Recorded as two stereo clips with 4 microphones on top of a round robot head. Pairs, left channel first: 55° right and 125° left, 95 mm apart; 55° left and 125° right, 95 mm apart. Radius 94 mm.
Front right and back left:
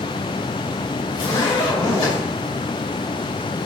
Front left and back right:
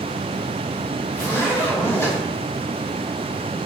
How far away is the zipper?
About 2.5 m.